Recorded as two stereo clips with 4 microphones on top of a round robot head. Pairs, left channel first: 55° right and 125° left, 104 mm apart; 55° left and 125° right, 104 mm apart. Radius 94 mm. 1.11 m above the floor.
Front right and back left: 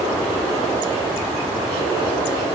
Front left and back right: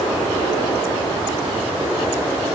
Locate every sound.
Only background noise.